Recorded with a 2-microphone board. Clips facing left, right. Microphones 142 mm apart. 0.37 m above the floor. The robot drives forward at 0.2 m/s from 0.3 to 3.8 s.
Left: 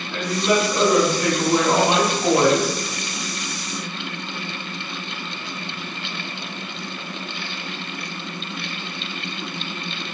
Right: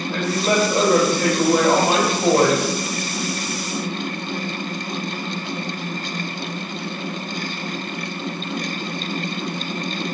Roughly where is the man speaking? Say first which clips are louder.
Even; right.